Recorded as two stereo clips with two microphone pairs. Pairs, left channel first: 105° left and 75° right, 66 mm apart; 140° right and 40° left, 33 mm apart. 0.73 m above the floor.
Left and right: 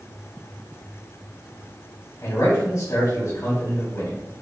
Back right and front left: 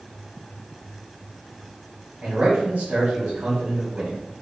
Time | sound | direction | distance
2.2 | a man speaking | 70° left | 1.7 m